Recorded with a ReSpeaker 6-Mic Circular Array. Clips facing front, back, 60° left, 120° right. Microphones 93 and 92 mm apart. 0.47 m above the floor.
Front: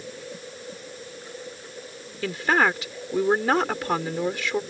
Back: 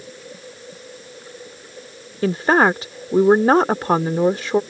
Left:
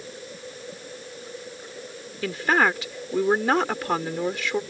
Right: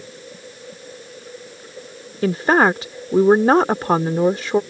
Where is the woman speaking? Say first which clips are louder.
Back 6 dB, right 6 dB; 150° right.